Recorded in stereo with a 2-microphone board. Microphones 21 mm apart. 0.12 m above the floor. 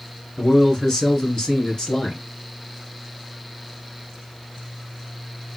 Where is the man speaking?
25° left (ahead or behind), 1.7 m; by 2.2 s 30° left (ahead or behind), 2 m.